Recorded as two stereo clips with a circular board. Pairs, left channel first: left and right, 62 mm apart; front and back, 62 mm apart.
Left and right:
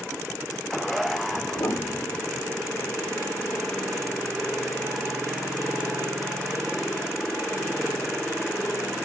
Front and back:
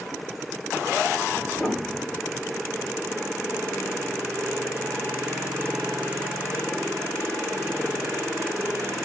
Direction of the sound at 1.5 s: 80° left.